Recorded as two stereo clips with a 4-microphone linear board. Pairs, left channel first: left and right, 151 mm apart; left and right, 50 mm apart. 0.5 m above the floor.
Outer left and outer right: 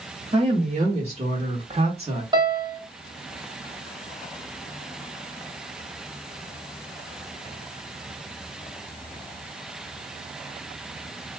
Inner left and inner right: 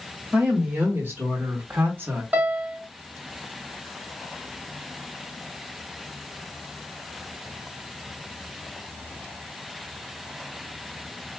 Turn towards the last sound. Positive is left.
turn(degrees=-30)  # may be behind; listen again after turning